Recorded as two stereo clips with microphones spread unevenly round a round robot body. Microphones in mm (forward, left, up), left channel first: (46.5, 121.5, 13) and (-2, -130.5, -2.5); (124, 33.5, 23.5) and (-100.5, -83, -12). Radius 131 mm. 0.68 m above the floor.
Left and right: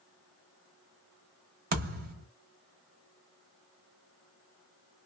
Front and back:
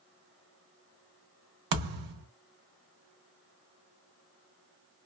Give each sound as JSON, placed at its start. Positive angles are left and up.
{"t": 1.7, "sound": "a thud", "azimuth_deg": -160, "distance_m": 1.0}